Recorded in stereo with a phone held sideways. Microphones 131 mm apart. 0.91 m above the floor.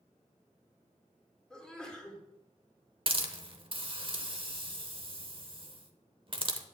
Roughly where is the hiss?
Right.